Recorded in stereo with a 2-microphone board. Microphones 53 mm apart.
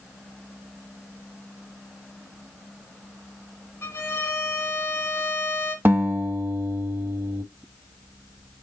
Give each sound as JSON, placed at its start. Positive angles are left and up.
{"t": 3.8, "sound": "a violin", "side_deg": 65, "distance_m": 3.5}
{"t": 5.8, "sound": "a guitar", "side_deg": -45, "distance_m": 0.7}